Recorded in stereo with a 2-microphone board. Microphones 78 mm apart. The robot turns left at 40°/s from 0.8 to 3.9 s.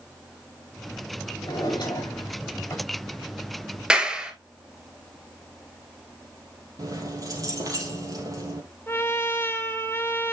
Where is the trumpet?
30° left (ahead or behind), 0.8 m.